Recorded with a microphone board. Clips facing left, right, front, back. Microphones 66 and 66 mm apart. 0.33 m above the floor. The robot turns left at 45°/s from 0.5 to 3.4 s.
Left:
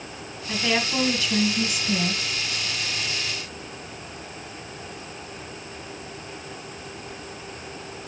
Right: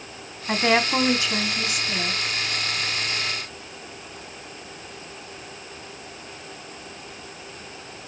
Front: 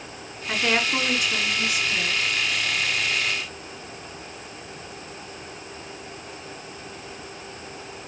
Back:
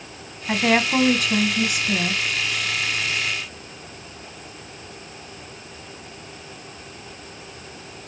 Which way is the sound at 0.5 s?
125° right.